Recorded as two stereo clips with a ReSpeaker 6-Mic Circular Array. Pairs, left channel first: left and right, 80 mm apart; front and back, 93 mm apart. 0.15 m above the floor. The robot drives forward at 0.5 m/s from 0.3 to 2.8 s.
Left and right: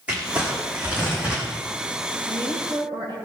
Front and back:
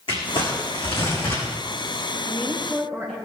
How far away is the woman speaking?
About 5 m.